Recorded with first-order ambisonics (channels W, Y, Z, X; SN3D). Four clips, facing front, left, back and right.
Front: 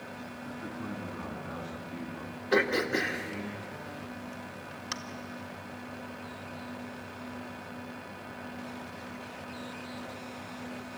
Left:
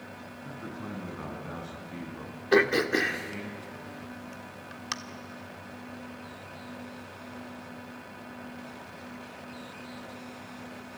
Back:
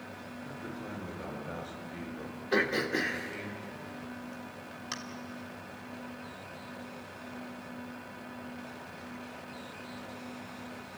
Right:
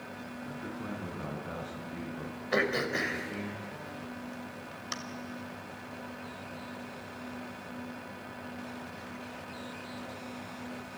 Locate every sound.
0.4 s a man speaking: 65° left, 7 m
2.5 s throat clearing: 75° left, 1.6 m